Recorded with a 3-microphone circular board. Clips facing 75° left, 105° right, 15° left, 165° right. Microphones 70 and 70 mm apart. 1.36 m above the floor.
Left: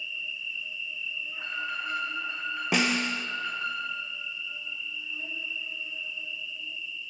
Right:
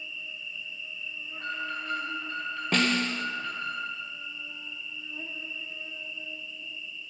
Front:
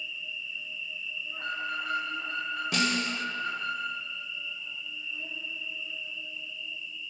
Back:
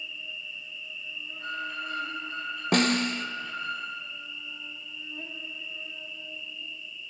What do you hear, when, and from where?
0.0 s an insect: 150° right, 1.4 m
1.3 s an alarm: straight ahead, 3 m
2.7 s a snare drum: 155° left, 0.6 m